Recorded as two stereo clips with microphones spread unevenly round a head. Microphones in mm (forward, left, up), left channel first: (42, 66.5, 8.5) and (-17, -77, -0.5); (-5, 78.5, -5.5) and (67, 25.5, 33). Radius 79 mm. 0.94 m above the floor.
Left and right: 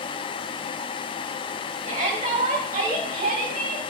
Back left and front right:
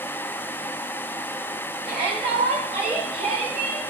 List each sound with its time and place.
1.9 s a shout: 70° right, 5.5 m; by 3.8 s 80° right, 8 m